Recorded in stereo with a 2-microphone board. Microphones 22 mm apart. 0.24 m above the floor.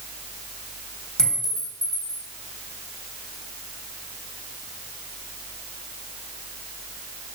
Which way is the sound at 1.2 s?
40° left (ahead or behind).